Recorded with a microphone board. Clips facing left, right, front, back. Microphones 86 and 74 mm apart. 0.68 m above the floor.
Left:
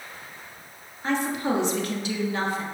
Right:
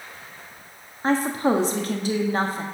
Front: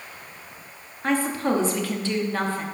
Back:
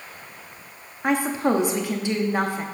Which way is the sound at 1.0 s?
115° right.